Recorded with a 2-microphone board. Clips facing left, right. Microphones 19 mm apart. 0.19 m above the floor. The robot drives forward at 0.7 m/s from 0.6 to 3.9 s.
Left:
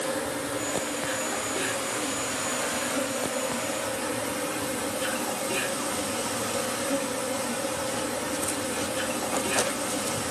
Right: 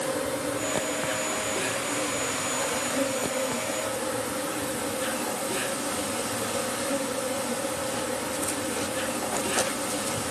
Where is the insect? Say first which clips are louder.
Right 1 dB; 30° left (ahead or behind), 6 m; by 10.3 s 45° left (ahead or behind), 4 m.